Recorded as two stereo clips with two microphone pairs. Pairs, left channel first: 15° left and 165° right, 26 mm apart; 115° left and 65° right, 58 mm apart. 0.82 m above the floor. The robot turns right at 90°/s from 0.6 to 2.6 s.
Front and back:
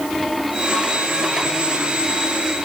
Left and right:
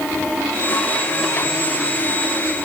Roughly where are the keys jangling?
I don't hear keys jangling.